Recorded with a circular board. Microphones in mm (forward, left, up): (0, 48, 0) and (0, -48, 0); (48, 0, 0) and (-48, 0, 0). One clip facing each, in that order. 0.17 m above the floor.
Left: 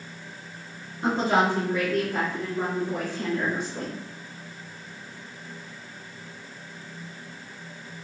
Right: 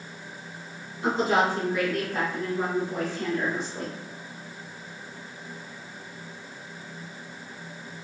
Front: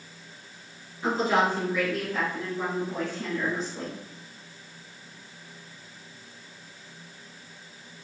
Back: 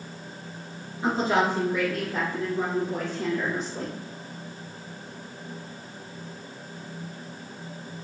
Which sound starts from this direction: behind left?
A woman speaking, at 1.0 s.